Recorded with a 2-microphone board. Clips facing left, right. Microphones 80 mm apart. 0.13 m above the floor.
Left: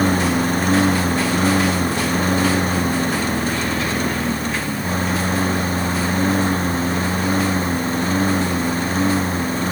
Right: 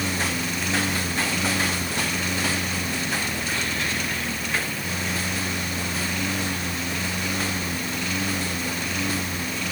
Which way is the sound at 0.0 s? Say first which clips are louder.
Left 10 dB; 45° left (ahead or behind).